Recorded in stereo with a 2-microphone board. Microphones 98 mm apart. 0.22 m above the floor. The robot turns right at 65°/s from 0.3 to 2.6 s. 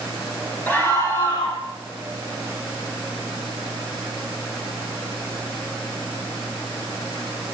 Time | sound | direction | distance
0.7 | a scream | 20° left | 3.5 m